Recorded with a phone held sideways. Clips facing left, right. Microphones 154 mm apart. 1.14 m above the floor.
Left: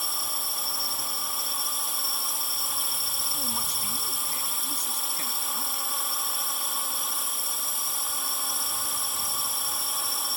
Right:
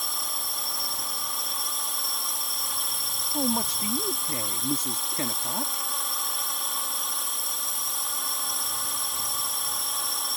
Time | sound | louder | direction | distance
0.0 | a drone | even | centre (ahead or behind) | ?
3.3 | a man speaking | right 12 dB | 70° right (ahead or behind) | ?